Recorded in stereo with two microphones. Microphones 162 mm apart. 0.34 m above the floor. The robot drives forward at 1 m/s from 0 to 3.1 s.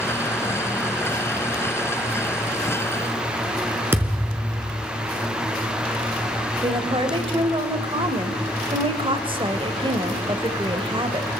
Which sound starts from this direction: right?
A woman speaking, at 6.6 s.